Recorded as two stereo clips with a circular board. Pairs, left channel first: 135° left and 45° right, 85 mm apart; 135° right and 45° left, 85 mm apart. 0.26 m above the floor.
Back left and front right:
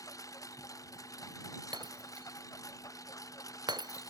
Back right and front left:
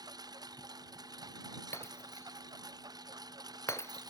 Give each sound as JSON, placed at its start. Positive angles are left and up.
{"t": 0.0, "sound": "a lawn mower", "azimuth_deg": 85}
{"t": 1.7, "sound": "breaking glass", "azimuth_deg": -75}